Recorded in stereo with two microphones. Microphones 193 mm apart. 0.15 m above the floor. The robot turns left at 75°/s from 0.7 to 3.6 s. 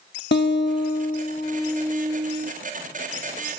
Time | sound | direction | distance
0.3 | a guitar | 80° left | 0.7 m